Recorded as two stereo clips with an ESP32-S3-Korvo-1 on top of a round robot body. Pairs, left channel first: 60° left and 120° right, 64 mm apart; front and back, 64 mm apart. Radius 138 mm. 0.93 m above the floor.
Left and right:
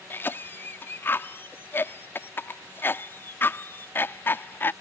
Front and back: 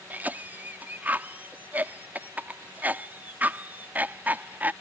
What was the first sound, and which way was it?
A cough, 115° left.